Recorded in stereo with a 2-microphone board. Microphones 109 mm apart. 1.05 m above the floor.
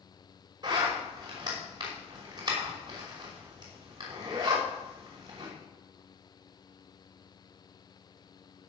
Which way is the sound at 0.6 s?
40° right (ahead or behind).